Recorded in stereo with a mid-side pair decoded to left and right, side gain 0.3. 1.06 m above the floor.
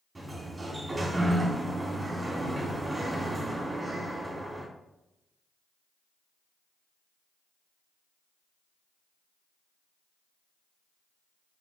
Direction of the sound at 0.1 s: 30° right.